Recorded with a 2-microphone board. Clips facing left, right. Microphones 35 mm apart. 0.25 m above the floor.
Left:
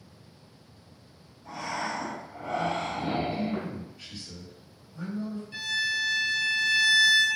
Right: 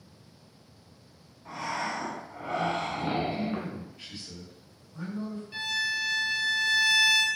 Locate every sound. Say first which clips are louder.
1.4 s breathing: even; 25° right (ahead or behind), 0.8 m
3.3 s a man speaking: left 1 dB; 15° right (ahead or behind), 1.4 m
5.5 s a violin: left 1 dB; 10° right (ahead or behind), 0.7 m